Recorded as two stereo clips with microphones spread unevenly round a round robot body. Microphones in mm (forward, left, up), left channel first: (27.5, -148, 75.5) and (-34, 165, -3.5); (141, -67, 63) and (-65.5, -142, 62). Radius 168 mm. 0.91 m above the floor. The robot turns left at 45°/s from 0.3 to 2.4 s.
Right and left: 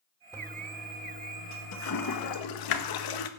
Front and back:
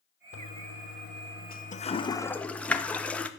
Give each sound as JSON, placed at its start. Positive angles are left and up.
{"t": 0.3, "sound": "a toilet flushing", "azimuth_deg": 30, "distance_m": 1.6}